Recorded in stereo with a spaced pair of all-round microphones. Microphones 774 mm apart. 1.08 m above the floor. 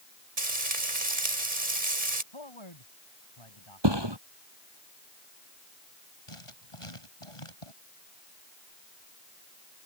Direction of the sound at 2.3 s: 35° left (ahead or behind).